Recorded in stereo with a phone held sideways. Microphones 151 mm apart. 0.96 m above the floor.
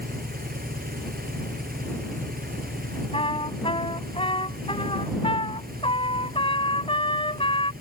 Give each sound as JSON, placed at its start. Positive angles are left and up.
{"t": 0.0, "sound": "an engine running", "side_deg": -85}
{"t": 3.1, "sound": "a trumpet", "side_deg": 35}